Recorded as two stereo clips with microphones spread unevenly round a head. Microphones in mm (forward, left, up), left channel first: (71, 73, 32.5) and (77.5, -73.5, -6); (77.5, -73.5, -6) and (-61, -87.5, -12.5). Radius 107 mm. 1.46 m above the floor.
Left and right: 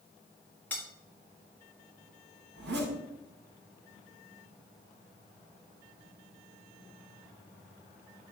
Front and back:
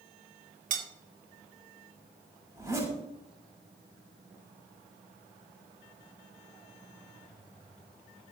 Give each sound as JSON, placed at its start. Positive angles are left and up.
{"t": 0.7, "sound": "cutlery clinking", "azimuth_deg": 160, "distance_m": 1.1}
{"t": 2.5, "sound": "a zipper", "azimuth_deg": -105, "distance_m": 6.5}